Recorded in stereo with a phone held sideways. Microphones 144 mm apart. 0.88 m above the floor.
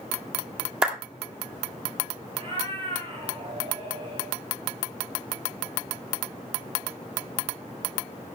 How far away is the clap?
About 2.0 m.